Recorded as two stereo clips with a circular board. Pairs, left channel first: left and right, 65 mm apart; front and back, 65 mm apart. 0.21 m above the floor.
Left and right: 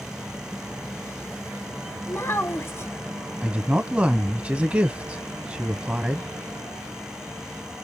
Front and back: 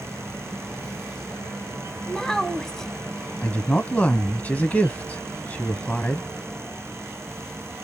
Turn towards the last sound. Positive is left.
turn(degrees=-40)